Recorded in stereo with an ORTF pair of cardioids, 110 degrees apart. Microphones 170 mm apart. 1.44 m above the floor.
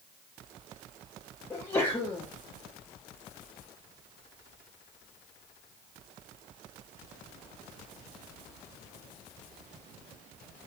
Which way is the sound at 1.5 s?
10° left.